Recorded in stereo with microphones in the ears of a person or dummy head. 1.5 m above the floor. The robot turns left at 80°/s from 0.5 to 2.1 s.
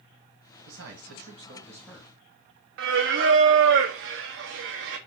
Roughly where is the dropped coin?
No dropped coin in this recording.